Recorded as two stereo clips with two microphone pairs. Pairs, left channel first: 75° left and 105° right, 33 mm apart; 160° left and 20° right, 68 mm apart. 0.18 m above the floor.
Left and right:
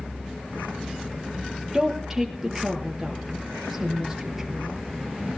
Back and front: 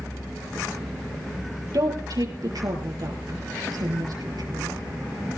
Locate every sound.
1.7 s a woman speaking: 20° right, 4 m